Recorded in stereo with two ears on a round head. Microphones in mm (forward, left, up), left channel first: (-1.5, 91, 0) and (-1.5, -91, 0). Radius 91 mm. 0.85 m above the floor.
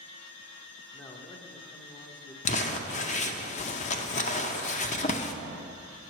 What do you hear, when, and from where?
0.9 s a man speaking: 15° left (ahead or behind), 0.8 m
2.5 s crumpling: 35° left (ahead or behind), 0.6 m